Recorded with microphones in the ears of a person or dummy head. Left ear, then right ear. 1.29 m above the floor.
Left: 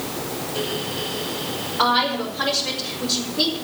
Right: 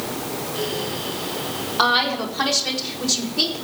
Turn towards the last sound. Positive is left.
turn(degrees=-85)